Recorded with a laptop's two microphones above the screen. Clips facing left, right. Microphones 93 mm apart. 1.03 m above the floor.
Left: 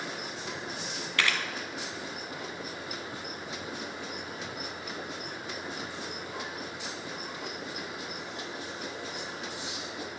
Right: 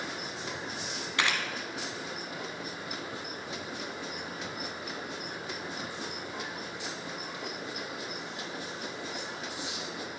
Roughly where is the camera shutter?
Right.